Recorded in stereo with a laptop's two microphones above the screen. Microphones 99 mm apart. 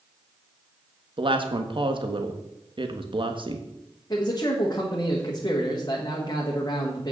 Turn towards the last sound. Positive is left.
turn(degrees=40)  # may be behind; listen again after turning